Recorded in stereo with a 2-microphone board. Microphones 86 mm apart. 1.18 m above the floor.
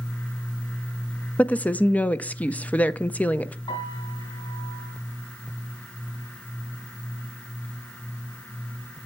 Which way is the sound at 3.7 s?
75° left (ahead or behind).